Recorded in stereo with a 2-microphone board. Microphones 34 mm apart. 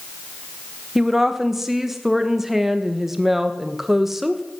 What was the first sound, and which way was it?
A woman speaking, 5° right (ahead or behind).